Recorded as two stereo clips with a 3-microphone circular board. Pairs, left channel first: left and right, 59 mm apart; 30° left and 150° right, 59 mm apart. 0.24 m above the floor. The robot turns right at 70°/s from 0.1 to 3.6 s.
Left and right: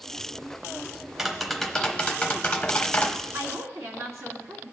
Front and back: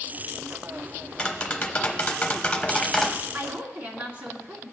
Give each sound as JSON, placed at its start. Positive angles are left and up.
{"t": 1.2, "sound": "tapping", "azimuth_deg": -20, "distance_m": 0.9}
{"t": 3.3, "sound": "a woman speaking", "azimuth_deg": -105, "distance_m": 2.0}